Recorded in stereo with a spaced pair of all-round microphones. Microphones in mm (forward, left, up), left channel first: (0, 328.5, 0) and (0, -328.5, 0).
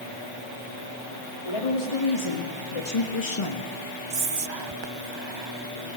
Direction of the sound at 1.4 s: 55° left (ahead or behind).